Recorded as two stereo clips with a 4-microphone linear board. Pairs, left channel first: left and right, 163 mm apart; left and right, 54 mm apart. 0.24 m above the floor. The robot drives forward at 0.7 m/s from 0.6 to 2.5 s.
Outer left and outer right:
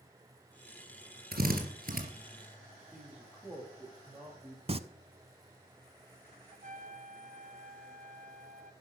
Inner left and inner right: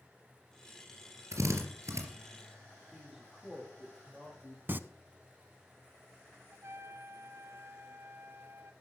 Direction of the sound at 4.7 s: 40° right (ahead or behind).